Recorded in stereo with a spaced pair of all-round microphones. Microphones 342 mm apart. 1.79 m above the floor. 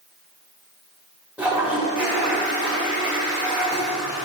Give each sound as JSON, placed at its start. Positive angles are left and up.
{"t": 1.4, "sound": "a toilet flushing", "side_deg": -5, "distance_m": 2.5}